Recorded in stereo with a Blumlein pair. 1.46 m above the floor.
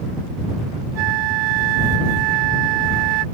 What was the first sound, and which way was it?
A flute, 45° right.